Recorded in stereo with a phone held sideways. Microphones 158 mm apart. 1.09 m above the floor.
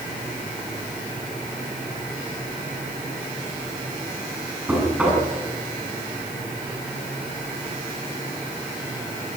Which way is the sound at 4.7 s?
5° right (ahead or behind).